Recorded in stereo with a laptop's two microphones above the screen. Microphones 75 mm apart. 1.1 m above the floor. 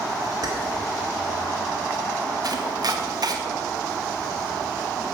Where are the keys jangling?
55° right (ahead or behind), 2.5 m.